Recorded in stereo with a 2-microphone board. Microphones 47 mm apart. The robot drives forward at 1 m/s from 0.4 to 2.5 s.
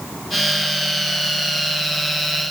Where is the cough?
No cough in this recording.